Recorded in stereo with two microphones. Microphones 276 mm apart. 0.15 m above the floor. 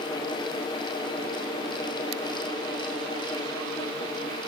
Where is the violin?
No violin in this recording.